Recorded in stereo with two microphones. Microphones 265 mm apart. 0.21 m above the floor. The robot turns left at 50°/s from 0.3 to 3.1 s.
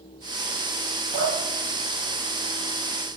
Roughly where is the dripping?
Left.